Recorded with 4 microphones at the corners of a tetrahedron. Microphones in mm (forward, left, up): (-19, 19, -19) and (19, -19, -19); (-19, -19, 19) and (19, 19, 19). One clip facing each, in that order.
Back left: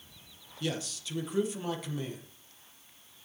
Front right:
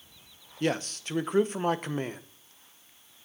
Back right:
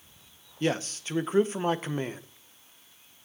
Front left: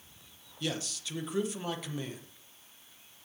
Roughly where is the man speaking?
Right.